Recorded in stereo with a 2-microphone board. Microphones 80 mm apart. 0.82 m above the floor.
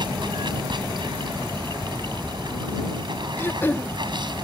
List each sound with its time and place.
0.0 s running water: 65° right (ahead or behind)
3.4 s throat clearing: 30° left (ahead or behind)